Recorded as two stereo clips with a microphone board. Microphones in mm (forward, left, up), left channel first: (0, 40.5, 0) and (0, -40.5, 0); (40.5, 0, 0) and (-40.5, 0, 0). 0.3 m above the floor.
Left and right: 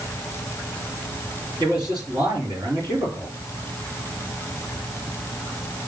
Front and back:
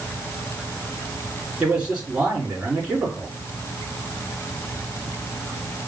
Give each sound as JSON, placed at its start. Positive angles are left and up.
{"t": 1.6, "sound": "a man speaking", "azimuth_deg": -105, "distance_m": 3.0}